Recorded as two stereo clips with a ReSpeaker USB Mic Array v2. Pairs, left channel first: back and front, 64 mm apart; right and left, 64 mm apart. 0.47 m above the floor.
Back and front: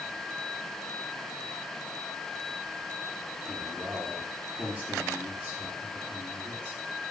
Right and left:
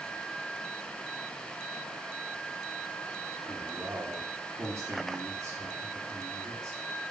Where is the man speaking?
65° left, 4.5 m.